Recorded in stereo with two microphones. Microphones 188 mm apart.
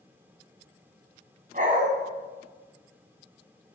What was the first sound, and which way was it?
A dog barking, 50° right (ahead or behind).